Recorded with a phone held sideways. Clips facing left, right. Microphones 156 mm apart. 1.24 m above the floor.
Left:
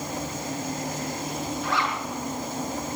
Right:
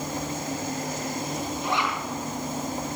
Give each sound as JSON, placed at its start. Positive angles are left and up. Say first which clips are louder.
{"t": 1.6, "sound": "a zipper", "louder": "right 1 dB", "side_deg": -20, "distance_m": 6.5}